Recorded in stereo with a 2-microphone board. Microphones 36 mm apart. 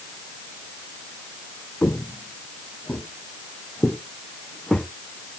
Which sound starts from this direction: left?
Footsteps, at 1.8 s.